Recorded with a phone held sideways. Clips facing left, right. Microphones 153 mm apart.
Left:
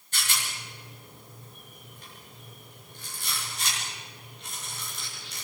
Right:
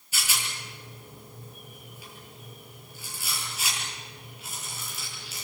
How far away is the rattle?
About 9 m.